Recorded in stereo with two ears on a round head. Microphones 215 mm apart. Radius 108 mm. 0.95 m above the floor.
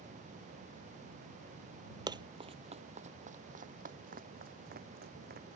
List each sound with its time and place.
2.1 s running footsteps: 15° right (ahead or behind); by 5.5 s 45° right (ahead or behind)